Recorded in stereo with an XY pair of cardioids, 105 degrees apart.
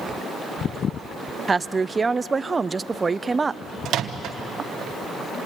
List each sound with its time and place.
1.5 s a woman speaking: 25° right, 0.5 m
3.9 s a microwave: 70° right, 1.1 m